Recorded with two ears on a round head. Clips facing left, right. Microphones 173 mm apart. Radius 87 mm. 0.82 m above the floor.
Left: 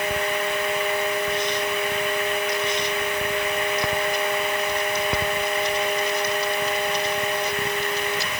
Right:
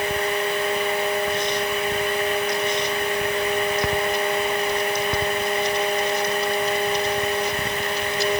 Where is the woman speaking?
No woman speaking in this recording.